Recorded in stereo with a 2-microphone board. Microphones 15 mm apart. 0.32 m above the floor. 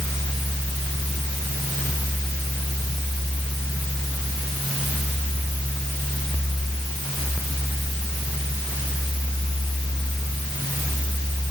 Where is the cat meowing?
I don't hear a cat meowing.